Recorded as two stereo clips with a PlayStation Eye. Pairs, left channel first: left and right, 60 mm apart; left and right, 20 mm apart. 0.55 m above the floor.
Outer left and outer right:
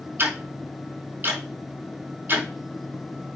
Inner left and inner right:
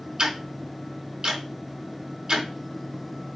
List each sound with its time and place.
0.2 s ticking: 35° right (ahead or behind), 5 m